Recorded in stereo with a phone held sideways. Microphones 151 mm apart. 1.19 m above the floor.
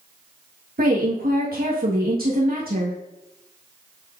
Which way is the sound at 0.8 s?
80° right.